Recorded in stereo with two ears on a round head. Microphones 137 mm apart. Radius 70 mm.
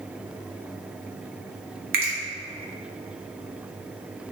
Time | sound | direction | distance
1.9 | a finger snap | 75° right (ahead or behind) | 0.7 m